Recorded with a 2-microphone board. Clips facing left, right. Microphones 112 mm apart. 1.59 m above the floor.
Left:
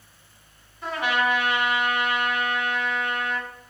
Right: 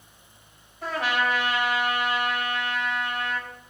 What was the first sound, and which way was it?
A trumpet, 75° right (ahead or behind).